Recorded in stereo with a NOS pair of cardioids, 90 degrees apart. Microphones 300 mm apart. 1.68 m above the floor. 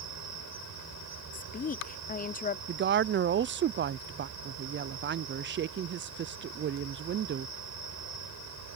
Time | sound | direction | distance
0.0 | an insect | 65° right | ?
1.3 | a woman speaking | 30° left | ?
2.7 | a woman speaking | 40° right | ?